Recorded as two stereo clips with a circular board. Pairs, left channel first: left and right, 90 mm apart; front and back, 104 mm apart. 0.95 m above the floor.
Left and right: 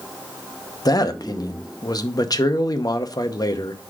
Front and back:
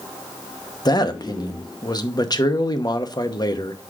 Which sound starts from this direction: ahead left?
A man speaking, at 0.8 s.